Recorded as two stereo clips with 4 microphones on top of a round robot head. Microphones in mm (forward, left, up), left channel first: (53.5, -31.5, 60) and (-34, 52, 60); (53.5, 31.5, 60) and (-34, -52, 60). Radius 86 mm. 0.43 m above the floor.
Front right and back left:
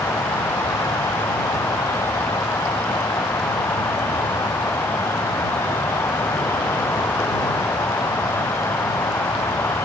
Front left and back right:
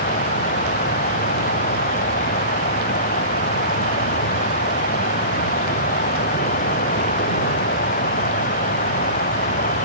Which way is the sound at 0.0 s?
30° left.